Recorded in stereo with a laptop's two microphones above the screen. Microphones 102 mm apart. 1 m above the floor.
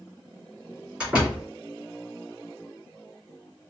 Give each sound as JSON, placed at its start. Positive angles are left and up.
{"t": 1.0, "sound": "a door slam", "side_deg": -10, "distance_m": 3.0}